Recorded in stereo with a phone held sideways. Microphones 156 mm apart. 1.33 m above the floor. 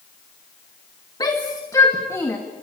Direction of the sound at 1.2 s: 25° left (ahead or behind).